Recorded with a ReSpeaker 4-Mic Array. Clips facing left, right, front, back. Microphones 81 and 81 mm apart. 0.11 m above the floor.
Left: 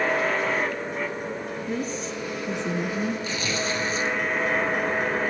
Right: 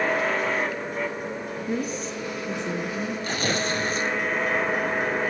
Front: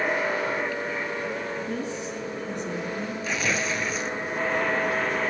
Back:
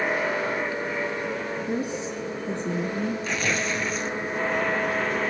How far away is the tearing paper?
About 1.0 m.